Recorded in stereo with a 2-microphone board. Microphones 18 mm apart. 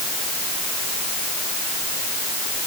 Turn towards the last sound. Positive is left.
No sound to turn to.